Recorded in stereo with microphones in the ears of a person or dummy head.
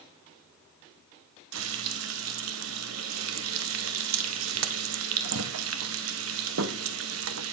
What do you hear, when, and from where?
1.5 s frying: 80° right, 1.5 m